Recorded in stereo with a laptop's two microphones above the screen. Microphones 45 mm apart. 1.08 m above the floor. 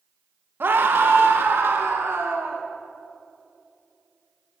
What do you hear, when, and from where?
0.6 s a scream: 50° right (ahead or behind), 1.5 m; by 2.6 s 65° right (ahead or behind), 3 m